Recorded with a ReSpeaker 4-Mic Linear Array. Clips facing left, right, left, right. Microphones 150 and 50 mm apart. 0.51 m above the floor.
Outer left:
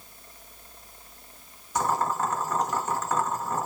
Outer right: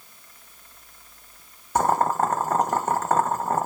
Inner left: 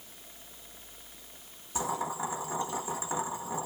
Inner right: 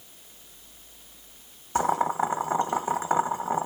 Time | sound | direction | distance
1.8 | boiling | 55° right (ahead or behind) | 0.6 m